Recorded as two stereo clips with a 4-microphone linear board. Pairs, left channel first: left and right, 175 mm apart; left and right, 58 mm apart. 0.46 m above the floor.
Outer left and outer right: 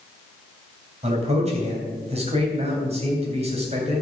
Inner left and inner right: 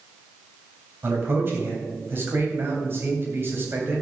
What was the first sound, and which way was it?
A man speaking, 40° right (ahead or behind).